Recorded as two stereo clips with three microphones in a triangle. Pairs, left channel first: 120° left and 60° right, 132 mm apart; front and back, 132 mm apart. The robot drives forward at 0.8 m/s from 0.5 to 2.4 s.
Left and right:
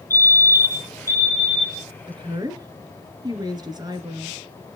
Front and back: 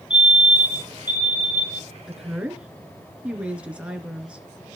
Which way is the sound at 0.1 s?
10° right.